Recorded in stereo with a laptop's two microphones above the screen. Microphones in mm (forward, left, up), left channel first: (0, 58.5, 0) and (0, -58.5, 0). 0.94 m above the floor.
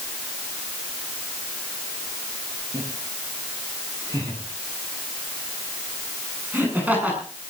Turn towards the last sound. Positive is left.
turn(degrees=-10)  # may be behind; listen again after turning